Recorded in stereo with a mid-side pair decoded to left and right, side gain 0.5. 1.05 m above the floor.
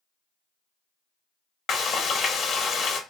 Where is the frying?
55° left, 0.7 m.